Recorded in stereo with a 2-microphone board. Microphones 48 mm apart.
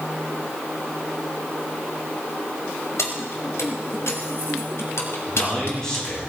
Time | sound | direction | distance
3.0 | keys jangling | 90° left | 2.5 m
5.3 | a man speaking | 15° left (ahead or behind) | 8 m